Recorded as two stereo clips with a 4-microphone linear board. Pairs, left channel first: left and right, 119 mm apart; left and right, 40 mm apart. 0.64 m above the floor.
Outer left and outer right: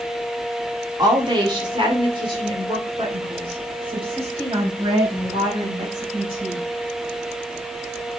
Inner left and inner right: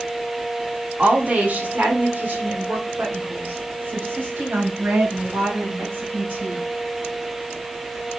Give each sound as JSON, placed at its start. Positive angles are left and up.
{"t": 1.0, "sound": "a woman speaking", "side_deg": -35, "distance_m": 1.6}